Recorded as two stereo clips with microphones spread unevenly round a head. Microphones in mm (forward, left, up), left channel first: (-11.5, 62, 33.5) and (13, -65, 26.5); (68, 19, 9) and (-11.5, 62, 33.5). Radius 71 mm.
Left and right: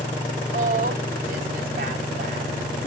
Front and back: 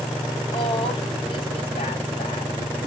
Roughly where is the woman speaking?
Ahead right.